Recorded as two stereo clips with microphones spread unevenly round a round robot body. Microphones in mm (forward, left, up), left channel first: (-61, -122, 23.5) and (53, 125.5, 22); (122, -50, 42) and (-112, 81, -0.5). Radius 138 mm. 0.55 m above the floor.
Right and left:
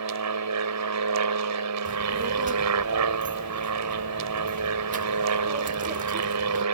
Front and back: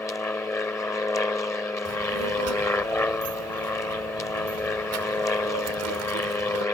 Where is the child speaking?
125° left.